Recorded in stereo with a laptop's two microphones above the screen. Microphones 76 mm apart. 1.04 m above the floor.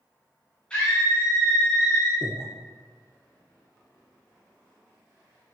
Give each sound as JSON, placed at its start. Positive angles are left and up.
{"t": 0.7, "sound": "a scream", "side_deg": 15, "distance_m": 1.6}
{"t": 2.2, "sound": "breathing", "side_deg": -30, "distance_m": 1.1}